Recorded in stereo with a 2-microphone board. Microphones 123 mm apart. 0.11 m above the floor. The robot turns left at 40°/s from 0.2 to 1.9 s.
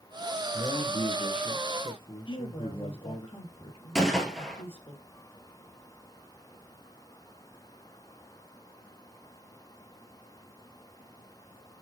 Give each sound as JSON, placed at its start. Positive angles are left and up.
{"t": 0.5, "sound": "a man speaking", "azimuth_deg": 110, "distance_m": 1.9}
{"t": 2.3, "sound": "a woman speaking", "side_deg": 50, "distance_m": 2.5}
{"t": 4.0, "sound": "a gunshot", "side_deg": 5, "distance_m": 1.6}